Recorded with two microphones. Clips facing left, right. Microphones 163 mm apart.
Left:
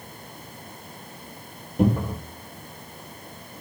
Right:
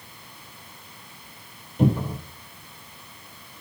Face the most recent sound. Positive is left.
turn(degrees=50)  # may be behind; listen again after turning